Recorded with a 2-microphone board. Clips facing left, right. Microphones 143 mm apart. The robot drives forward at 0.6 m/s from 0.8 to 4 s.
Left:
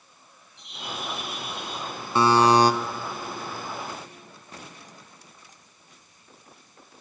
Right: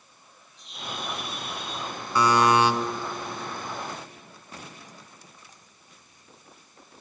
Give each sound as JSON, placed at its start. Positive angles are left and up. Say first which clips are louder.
{"t": 0.6, "sound": "a bird", "louder": "left 1 dB", "side_deg": 70, "distance_m": 4.5}
{"t": 2.1, "sound": "a buzzer", "louder": "left 2 dB", "side_deg": 25, "distance_m": 0.8}